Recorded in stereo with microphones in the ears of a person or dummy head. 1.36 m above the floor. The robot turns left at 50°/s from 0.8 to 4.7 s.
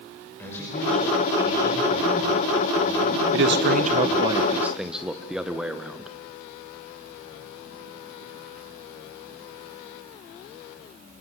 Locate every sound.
0.4 s a man speaking: 20° left, 6 m; by 4.3 s 160° right, 6 m
3.3 s a man speaking: 105° right, 1.3 m; by 6.1 s 175° right, 1.3 m